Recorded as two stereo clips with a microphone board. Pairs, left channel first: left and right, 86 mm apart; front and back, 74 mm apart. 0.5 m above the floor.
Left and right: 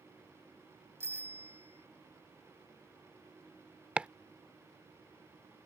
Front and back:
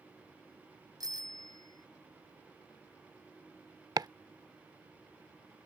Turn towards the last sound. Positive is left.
turn(degrees=-165)